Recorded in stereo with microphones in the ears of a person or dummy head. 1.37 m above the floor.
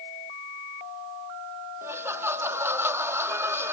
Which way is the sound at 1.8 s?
10° right (ahead or behind).